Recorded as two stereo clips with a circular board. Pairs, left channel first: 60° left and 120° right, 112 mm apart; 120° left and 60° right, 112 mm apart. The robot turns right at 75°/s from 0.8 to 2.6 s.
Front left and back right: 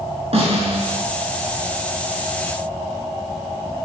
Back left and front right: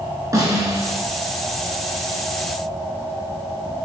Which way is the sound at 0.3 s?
115° right.